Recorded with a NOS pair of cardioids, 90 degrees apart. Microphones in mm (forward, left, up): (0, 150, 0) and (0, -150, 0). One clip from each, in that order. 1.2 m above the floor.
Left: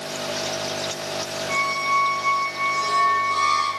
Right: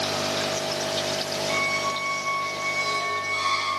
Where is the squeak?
65° left, 2.5 m.